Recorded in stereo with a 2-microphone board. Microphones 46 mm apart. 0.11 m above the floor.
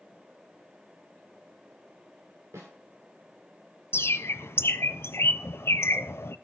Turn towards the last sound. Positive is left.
turn(degrees=60)  # may be behind; listen again after turning